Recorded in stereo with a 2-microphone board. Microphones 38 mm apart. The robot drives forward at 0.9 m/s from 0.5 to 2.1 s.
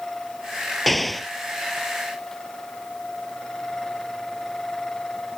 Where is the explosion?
5° left (ahead or behind).